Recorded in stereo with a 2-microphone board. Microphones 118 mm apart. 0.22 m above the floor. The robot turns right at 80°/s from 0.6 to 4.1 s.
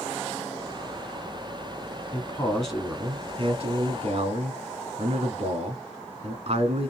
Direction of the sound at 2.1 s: 135° left.